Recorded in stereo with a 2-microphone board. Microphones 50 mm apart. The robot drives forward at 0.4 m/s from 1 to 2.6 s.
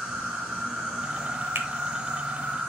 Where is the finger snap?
55° right (ahead or behind), 1.0 m.